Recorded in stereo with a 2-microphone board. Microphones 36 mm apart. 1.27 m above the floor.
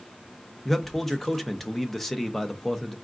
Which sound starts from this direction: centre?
A man speaking, at 0.7 s.